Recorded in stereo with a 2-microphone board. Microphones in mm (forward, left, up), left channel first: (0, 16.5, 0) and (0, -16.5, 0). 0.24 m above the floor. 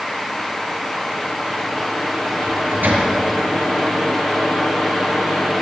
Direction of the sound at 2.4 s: 75° right (ahead or behind).